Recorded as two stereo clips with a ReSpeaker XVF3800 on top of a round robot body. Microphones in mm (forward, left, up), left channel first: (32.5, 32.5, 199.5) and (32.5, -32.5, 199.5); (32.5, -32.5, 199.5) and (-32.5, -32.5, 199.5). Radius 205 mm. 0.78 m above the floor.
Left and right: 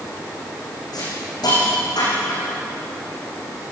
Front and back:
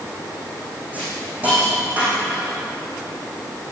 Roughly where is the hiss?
Left.